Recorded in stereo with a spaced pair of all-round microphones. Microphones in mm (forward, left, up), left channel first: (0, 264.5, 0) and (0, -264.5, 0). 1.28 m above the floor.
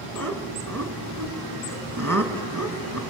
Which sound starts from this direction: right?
Laughter, at 0.1 s.